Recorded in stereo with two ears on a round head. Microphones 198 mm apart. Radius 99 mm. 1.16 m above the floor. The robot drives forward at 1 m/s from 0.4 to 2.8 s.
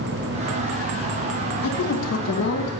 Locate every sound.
1.6 s a woman speaking: 75° left (ahead or behind), 1.2 m; by 2.7 s 55° left (ahead or behind), 1.4 m